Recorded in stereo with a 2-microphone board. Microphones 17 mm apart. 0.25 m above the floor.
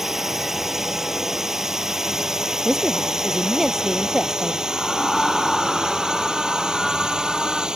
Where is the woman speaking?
10° right (ahead or behind).